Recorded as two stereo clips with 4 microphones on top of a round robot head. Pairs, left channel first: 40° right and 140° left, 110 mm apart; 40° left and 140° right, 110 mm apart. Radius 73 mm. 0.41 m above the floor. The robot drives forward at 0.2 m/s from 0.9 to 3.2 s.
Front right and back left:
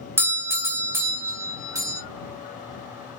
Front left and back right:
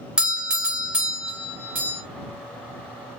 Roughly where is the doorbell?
Behind left.